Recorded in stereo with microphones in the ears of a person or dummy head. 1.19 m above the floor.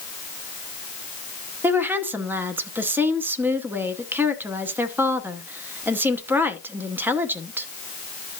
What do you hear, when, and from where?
1.6 s a woman speaking: 10° right (ahead or behind), 0.8 m